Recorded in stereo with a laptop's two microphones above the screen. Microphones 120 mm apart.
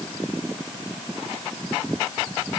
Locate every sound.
Only background noise.